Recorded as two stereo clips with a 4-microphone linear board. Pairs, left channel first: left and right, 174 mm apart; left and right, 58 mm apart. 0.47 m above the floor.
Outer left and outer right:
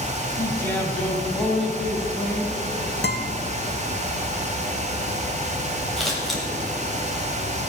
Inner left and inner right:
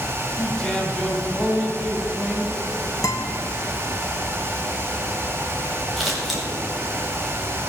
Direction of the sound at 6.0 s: Centre (ahead or behind).